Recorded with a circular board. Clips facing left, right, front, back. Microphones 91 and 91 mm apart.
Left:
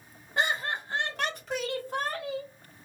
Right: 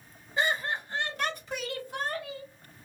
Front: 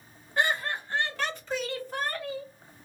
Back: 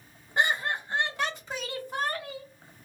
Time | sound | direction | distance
0.4 | laughter | 110° left | 1.5 m